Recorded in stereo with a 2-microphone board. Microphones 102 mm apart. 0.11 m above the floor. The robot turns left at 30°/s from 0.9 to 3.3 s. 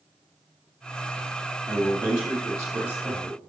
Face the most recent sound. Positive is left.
turn(degrees=155)